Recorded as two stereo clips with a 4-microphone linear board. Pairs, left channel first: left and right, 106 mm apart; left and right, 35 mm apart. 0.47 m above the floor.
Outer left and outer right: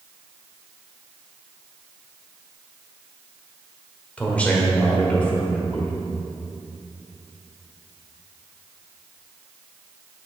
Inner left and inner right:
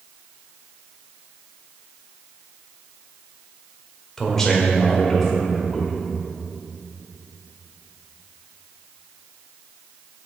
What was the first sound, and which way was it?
A man speaking, 10° left (ahead or behind).